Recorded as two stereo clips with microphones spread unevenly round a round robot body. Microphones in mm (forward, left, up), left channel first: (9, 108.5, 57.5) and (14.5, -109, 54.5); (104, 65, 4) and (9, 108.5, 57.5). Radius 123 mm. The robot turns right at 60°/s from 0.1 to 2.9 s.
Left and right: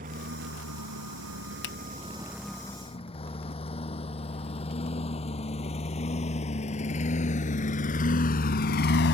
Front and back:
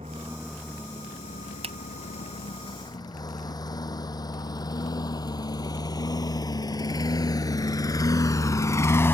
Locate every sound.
0.0 s a lawn mower: 140° right; by 9.1 s 60° left
1.6 s a finger snap: 115° left; by 1.8 s 120° left